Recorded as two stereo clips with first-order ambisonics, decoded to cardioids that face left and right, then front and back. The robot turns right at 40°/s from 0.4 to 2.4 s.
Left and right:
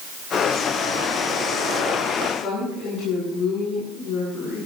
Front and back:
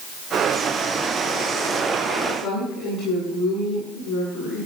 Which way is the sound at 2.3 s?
50° left.